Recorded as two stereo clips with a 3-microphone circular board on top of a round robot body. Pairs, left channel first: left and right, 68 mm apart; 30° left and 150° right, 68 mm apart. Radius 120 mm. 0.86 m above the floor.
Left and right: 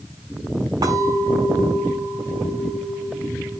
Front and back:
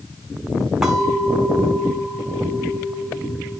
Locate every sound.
0.8 s a clink: 65° right, 6 m